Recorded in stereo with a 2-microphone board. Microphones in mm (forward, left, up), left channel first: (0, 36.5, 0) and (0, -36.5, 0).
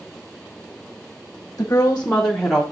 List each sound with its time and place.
1.6 s a woman speaking: 40° left (ahead or behind), 0.9 m; by 2.6 s 5° right (ahead or behind), 1.0 m